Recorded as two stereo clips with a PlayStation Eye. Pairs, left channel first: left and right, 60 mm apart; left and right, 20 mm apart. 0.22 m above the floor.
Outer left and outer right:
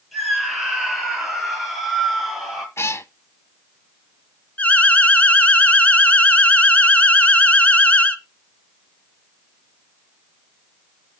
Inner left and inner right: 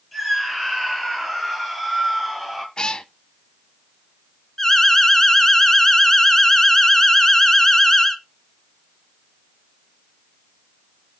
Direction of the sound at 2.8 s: 45° left (ahead or behind).